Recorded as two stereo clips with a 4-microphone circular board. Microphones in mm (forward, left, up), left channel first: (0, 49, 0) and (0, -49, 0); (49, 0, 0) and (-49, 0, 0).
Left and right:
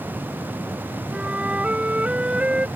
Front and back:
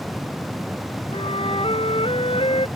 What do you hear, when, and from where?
1.1 s a flute: 15° right